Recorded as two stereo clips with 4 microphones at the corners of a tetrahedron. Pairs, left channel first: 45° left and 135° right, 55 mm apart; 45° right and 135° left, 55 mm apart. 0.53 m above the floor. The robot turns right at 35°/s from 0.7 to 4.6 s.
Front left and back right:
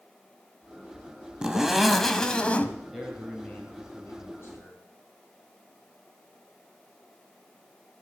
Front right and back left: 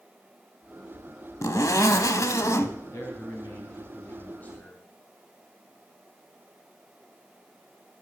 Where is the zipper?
60° right, 0.9 m; by 2.8 s 15° right, 0.9 m.